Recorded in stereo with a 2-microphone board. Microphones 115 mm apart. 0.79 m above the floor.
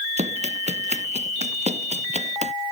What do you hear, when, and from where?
0.2 s running footsteps: 75° right (ahead or behind); by 2.5 s 80° right